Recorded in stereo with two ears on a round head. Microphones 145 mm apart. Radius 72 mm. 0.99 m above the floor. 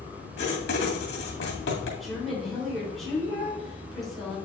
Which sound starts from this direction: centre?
A woman speaking, at 2.0 s.